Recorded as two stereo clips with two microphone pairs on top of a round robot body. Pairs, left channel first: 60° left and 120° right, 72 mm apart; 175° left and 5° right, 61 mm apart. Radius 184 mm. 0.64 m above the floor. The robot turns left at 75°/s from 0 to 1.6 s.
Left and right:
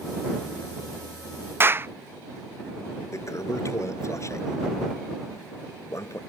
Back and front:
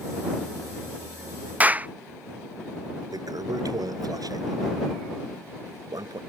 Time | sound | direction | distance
1.6 | a clap | 65° right | ?
3.1 | a toilet flushing | 15° left | ?